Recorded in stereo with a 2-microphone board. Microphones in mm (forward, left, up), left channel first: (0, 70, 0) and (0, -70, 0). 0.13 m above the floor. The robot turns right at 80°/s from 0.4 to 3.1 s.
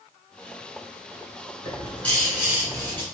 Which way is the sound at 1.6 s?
130° left.